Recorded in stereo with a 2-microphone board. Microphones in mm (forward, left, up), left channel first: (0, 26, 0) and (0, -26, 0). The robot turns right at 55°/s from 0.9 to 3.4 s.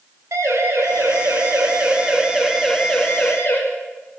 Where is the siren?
75° right (ahead or behind), 8.5 m; by 3.6 s 45° left (ahead or behind), 6 m.